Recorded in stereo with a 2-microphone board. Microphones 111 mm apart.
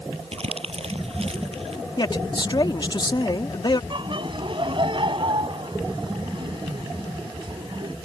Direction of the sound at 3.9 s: 45° right (ahead or behind).